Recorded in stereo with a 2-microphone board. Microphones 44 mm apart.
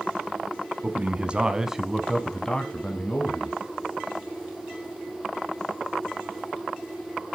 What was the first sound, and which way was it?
A man speaking, 35° right (ahead or behind).